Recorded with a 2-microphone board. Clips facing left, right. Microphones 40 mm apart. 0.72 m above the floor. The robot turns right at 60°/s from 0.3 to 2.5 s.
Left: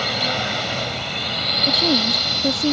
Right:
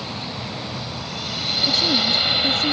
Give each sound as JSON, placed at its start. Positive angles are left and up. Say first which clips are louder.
{"t": 0.0, "sound": "a drone", "louder": "left 8 dB", "azimuth_deg": 80}
{"t": 1.7, "sound": "a woman speaking", "louder": "left 1 dB", "azimuth_deg": 30}